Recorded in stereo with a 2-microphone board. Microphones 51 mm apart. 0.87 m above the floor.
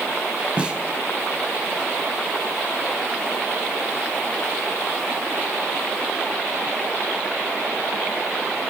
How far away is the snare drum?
About 3 m.